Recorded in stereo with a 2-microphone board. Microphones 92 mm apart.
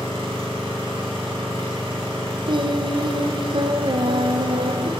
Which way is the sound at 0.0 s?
70° right (ahead or behind).